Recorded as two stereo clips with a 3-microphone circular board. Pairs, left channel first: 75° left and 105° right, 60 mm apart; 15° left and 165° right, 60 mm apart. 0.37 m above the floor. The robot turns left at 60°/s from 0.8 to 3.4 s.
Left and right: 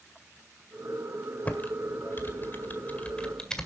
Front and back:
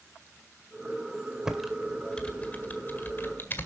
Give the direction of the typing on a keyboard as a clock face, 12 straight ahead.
8 o'clock.